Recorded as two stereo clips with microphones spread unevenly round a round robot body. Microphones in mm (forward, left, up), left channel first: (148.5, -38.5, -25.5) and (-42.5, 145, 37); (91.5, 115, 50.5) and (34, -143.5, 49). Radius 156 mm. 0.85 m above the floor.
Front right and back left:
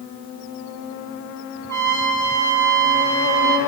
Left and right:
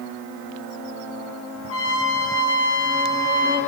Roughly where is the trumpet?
Ahead left.